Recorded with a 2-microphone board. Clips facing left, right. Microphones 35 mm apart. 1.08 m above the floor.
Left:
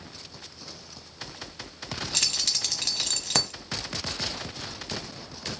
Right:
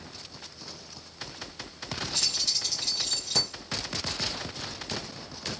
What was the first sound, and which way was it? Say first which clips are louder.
Keys jangling: left 3 dB; 70° left (ahead or behind).